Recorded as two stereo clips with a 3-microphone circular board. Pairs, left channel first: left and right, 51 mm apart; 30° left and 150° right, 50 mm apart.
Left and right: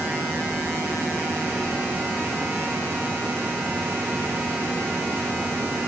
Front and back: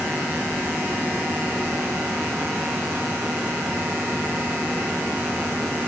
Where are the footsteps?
I don't hear footsteps.